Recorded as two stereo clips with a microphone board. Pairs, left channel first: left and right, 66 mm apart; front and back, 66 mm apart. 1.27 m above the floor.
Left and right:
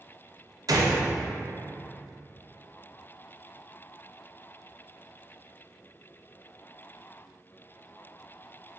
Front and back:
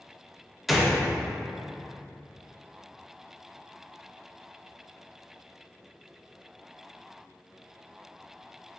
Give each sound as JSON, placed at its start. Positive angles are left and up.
{"t": 0.7, "sound": "a gunshot", "azimuth_deg": -90, "distance_m": 0.5}